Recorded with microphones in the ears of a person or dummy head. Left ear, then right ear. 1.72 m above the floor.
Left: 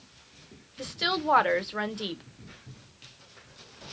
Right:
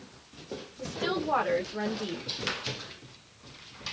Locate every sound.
0.8 s a woman speaking: 50° left (ahead or behind), 1.0 m